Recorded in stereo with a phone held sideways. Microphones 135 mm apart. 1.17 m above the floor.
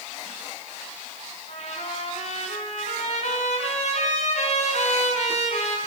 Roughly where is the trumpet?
Left.